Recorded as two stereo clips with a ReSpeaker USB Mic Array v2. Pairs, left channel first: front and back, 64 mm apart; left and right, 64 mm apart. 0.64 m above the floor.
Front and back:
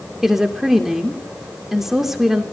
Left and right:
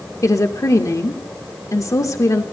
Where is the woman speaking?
95° left, 2.0 m.